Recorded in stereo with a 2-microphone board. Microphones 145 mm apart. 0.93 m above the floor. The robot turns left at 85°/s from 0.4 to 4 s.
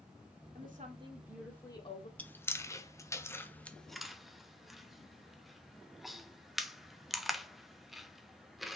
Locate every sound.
0.6 s a woman speaking: 105° right, 2.5 m; by 2.1 s 125° left, 2.5 m
2.2 s chewing: 10° left (ahead or behind), 0.8 m; by 8.8 s centre (ahead or behind), 0.8 m